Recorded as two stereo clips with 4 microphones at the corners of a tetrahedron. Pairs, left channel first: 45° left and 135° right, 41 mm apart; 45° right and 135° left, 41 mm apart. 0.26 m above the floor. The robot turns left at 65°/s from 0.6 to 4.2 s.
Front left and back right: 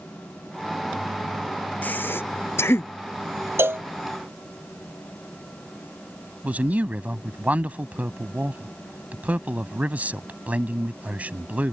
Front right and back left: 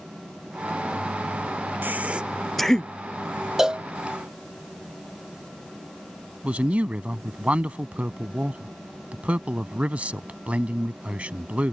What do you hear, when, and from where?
1.8 s breathing: 95° left; by 2.9 s 20° left
3.6 s a cowbell: 145° right; by 3.9 s 160° right
6.4 s a man speaking: 175° right